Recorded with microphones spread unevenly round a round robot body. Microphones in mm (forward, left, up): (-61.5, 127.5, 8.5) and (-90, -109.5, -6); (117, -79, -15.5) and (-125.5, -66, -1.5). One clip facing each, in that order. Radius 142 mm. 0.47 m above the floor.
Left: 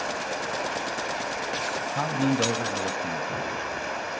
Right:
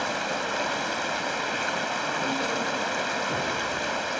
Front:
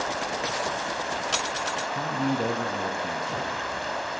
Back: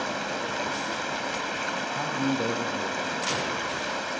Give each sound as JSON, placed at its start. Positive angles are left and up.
{"t": 0.0, "sound": "running water", "azimuth_deg": -135, "distance_m": 1.8}
{"t": 1.9, "sound": "a man speaking", "azimuth_deg": 75, "distance_m": 2.5}